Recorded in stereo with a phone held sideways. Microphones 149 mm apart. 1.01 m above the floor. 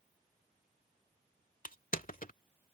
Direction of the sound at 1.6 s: 70° left (ahead or behind).